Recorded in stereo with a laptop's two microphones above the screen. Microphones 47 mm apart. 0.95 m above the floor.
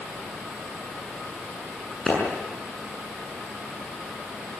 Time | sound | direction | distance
2.1 | a clap | 5° left (ahead or behind) | 7 m